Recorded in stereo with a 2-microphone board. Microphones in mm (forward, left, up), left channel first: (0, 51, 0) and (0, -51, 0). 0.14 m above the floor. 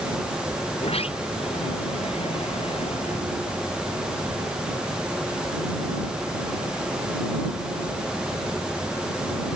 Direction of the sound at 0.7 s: 70° left (ahead or behind).